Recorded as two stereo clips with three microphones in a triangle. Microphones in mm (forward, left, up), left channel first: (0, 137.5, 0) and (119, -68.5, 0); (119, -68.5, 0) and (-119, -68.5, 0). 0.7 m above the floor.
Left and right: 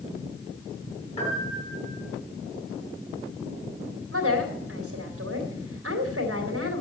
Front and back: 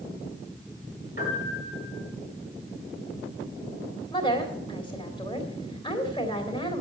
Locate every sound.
1.2 s a piano: 55° left, 7 m
4.1 s a woman speaking: 70° right, 3.5 m